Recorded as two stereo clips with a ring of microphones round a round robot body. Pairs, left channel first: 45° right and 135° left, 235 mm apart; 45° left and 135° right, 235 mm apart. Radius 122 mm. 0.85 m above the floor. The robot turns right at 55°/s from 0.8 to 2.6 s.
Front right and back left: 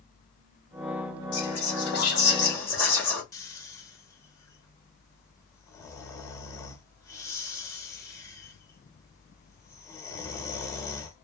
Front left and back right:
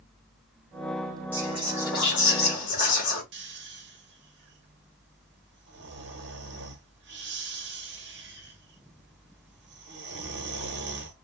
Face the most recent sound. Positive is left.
turn(degrees=-120)